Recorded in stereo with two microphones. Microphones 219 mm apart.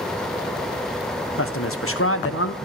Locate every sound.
1.4 s a man speaking: 75° left (ahead or behind), 1.1 m